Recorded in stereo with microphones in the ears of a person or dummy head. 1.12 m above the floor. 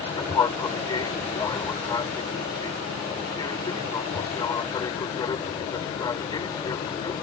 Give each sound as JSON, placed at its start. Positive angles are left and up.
{"t": 0.0, "sound": "an aircraft", "side_deg": 20}